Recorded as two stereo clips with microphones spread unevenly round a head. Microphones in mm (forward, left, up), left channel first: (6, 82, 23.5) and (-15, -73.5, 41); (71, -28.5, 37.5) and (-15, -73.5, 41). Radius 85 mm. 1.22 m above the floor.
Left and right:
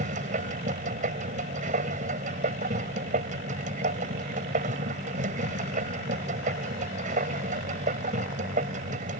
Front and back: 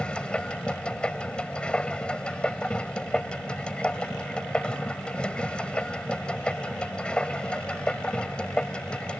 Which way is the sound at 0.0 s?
55° right.